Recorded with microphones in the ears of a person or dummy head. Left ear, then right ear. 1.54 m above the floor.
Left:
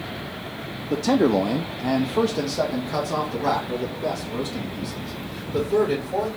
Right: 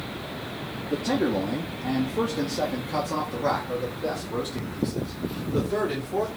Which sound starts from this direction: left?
A man speaking, at 0.9 s.